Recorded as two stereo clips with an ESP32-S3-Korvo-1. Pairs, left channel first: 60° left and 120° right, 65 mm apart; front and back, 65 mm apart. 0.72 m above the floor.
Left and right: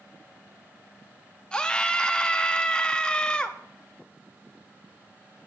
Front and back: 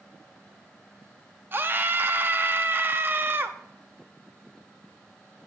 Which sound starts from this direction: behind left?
A scream, at 1.5 s.